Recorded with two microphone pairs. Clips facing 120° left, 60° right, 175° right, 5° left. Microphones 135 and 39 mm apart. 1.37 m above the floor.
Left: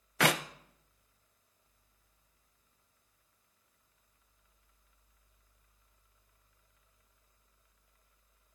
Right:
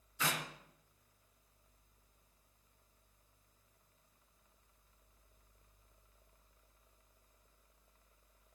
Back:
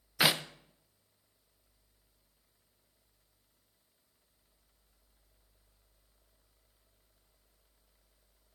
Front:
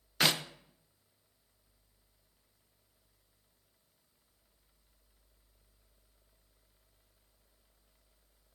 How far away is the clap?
About 0.6 m.